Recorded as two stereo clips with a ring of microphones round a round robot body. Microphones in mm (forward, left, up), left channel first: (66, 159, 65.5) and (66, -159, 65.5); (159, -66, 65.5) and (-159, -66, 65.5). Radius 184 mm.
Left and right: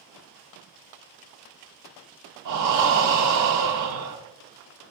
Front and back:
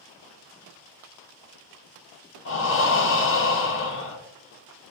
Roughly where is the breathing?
Ahead right.